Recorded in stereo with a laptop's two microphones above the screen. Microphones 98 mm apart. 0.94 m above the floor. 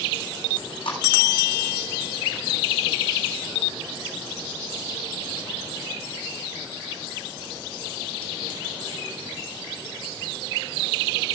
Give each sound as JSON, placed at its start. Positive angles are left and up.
{"t": 0.6, "sound": "chewing", "side_deg": 65, "distance_m": 7.0}